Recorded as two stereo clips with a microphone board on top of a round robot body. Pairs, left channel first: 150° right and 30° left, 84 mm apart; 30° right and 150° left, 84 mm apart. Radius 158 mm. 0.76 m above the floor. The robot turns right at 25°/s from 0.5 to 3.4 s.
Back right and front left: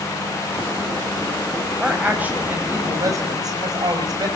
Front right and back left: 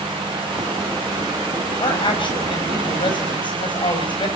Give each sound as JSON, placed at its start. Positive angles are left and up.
{"t": 1.8, "sound": "a woman speaking", "azimuth_deg": -50, "distance_m": 5.0}